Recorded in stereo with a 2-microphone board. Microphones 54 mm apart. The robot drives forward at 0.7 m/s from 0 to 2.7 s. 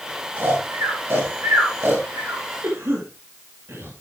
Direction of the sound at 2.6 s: 55° right (ahead or behind).